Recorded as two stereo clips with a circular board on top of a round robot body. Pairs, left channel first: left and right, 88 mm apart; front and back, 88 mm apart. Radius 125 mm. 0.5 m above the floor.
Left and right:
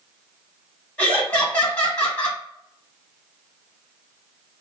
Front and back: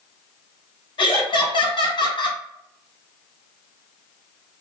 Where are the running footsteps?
I don't hear running footsteps.